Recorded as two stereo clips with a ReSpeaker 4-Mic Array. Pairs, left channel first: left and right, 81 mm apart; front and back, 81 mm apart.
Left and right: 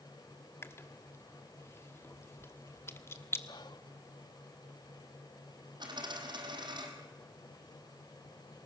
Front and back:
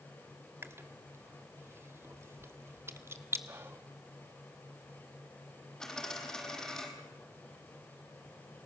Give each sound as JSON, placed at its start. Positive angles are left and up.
{"t": 0.6, "sound": "chewing", "azimuth_deg": 135, "distance_m": 1.2}
{"t": 3.5, "sound": "whispering", "azimuth_deg": 120, "distance_m": 0.9}
{"t": 5.8, "sound": "a dropped coin", "azimuth_deg": -80, "distance_m": 3.5}